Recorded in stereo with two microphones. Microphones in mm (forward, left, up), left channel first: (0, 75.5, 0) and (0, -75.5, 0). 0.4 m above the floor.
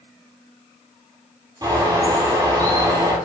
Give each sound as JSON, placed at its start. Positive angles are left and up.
{"t": 1.6, "sound": "a bird", "side_deg": -30, "distance_m": 2.0}